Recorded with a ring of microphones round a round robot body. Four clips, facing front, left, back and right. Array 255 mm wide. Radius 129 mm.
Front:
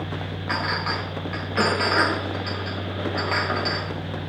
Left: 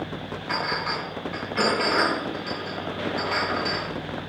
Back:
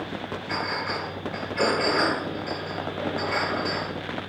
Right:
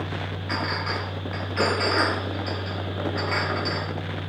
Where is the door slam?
I don't hear a door slam.